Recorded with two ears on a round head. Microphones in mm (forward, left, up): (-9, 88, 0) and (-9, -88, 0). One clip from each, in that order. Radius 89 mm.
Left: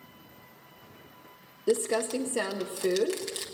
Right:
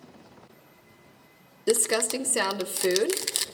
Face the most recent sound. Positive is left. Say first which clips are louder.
# right 2 dB
turn(degrees=-45)  # may be behind; listen again after turning